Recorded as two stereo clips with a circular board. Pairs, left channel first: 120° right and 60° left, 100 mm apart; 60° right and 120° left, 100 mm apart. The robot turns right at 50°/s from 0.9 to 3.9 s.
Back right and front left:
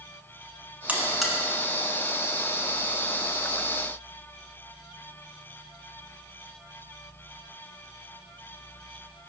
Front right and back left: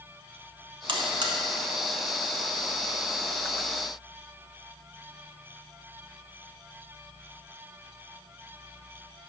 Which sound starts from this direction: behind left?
A buzzer, at 0.9 s.